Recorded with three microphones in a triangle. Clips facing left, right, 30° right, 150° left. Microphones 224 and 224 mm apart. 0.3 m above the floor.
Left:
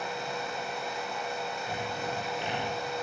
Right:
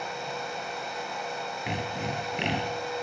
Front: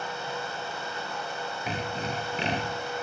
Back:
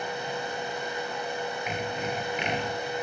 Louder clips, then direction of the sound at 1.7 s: Right 5 dB, front 2 dB; 85° right.